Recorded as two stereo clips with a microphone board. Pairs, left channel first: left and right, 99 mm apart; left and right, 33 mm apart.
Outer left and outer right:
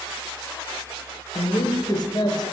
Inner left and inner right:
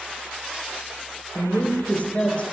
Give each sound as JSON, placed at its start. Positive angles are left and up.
{"t": 1.4, "sound": "a woman speaking", "side_deg": 45, "distance_m": 1.9}